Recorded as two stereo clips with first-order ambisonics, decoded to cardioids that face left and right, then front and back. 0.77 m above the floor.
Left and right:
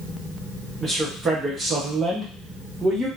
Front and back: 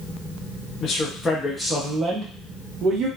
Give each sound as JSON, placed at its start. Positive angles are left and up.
{"t": 0.8, "sound": "a man speaking", "azimuth_deg": -35, "distance_m": 0.8}